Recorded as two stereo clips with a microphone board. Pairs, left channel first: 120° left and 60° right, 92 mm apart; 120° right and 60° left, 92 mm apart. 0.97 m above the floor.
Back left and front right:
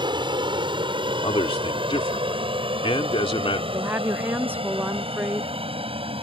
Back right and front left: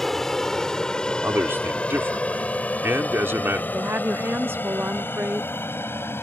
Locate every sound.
0.0 s an aircraft: 35° right; by 6.2 s 55° right
1.2 s a man speaking: 125° left
3.7 s a woman speaking: 5° left